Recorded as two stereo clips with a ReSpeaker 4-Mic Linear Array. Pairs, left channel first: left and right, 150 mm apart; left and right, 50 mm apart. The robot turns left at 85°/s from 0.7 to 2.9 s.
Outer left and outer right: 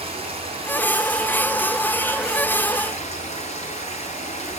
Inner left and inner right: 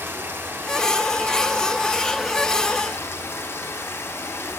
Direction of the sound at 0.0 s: 45° right.